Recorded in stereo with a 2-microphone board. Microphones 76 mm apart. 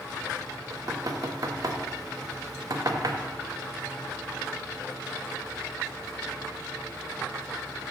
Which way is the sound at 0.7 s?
50° right (ahead or behind).